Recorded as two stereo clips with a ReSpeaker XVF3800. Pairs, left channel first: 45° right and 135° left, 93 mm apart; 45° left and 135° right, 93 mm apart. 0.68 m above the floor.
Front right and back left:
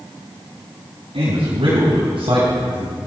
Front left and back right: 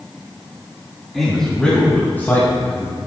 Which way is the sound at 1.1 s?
135° left.